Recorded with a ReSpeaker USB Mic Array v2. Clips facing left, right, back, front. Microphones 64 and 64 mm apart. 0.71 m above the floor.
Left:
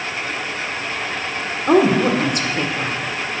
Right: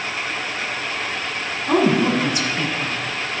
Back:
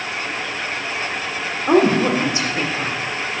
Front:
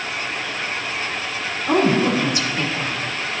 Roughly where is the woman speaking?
Behind left.